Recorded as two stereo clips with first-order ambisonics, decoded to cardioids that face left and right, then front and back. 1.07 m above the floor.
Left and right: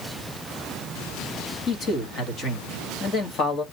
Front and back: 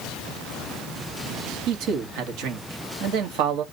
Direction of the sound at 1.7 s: 150° left.